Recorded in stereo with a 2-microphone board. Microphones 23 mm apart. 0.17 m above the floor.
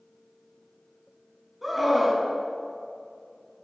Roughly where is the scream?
Centre.